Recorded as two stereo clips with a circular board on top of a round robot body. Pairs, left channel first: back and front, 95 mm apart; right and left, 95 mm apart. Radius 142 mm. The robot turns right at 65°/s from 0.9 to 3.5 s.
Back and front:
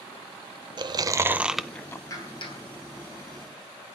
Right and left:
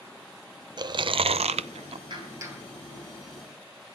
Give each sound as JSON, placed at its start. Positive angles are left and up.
{"t": 0.8, "sound": "chewing", "azimuth_deg": 45, "distance_m": 0.5}
{"t": 2.1, "sound": "a clap", "azimuth_deg": 125, "distance_m": 3.5}